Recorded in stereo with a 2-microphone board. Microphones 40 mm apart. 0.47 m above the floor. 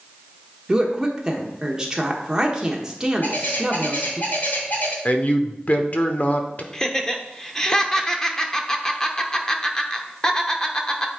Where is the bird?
45° left (ahead or behind), 2 m.